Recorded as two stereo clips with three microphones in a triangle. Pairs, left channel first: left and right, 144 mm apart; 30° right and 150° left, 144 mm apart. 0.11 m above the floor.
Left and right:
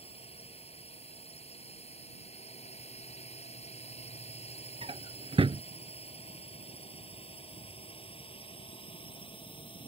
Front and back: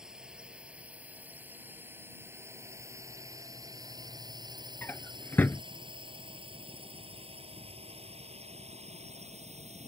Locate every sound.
0.0 s a drone: 65° left; by 9.9 s 130° left
4.8 s a drawer: 100° right